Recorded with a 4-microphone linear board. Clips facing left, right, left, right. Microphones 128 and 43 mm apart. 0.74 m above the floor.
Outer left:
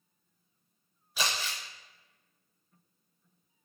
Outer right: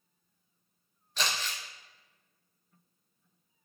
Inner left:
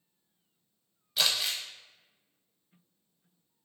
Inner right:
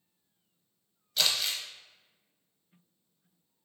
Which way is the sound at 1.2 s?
10° left (ahead or behind).